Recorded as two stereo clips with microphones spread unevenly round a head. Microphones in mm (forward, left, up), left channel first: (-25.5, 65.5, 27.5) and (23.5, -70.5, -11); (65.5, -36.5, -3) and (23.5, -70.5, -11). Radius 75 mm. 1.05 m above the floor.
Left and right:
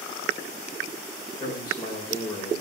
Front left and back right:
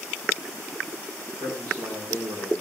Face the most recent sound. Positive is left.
turn(degrees=175)